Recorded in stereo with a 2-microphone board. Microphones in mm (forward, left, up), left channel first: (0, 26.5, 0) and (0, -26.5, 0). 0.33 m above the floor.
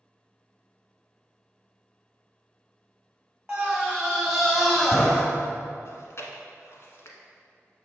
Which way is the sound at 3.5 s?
15° right (ahead or behind).